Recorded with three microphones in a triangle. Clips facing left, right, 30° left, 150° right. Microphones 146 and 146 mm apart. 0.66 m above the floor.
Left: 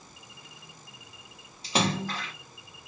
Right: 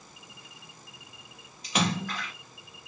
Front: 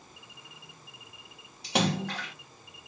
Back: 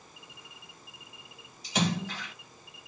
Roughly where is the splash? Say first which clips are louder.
Left 1 dB, front 2 dB; ahead left.